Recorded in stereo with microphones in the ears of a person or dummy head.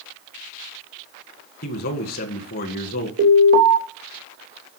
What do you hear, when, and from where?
1.6 s a man speaking: 45° left (ahead or behind), 1.7 m
3.2 s an alarm: 50° right (ahead or behind), 2.5 m